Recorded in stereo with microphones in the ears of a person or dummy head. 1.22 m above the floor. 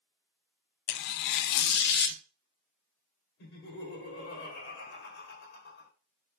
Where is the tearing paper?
60° left (ahead or behind), 0.6 m.